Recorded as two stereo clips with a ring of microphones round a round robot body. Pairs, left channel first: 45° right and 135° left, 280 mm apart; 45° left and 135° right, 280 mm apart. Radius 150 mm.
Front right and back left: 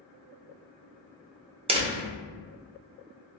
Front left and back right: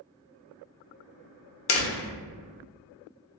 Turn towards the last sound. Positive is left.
turn(degrees=70)